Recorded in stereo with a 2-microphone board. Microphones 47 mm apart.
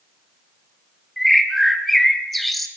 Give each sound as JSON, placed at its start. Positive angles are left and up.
{"t": 1.2, "sound": "a bird", "side_deg": 0, "distance_m": 2.5}